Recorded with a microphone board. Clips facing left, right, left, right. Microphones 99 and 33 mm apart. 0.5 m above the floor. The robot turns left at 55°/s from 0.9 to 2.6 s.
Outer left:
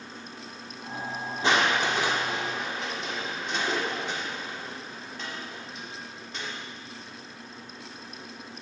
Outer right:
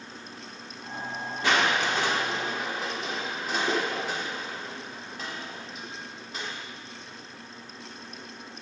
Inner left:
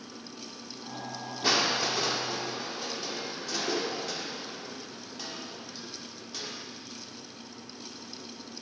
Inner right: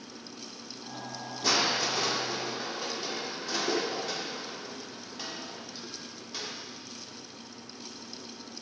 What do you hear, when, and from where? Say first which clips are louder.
1.4 s crushing: outer left 1 dB, inner left 1 dB; 55° left, 1.5 m; by 6.5 s 10° right, 1.5 m